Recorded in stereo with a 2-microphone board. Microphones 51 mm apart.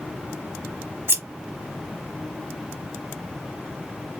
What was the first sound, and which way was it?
Scissors, 50° right (ahead or behind).